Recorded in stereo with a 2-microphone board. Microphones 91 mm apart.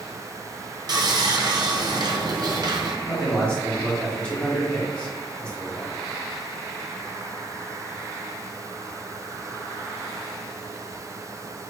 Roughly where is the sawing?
Right.